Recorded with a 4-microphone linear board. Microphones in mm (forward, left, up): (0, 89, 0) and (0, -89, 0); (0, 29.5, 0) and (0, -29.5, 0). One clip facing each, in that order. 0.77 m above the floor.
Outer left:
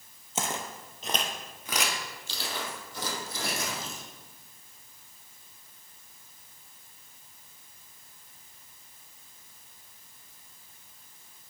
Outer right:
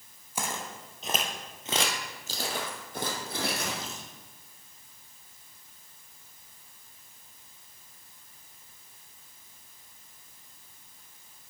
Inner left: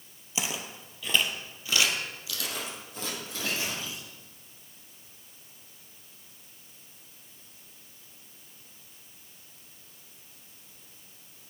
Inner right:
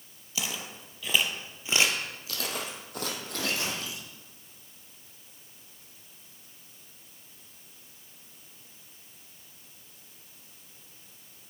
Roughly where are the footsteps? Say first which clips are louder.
Outer left 2 dB, inner left 1 dB; left.